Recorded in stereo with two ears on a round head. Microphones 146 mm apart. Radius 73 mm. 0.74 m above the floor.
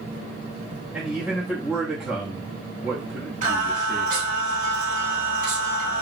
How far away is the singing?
About 1.8 m.